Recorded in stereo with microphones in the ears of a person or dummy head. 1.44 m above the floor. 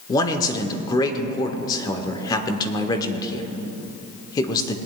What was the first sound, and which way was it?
A man speaking, 20° left (ahead or behind).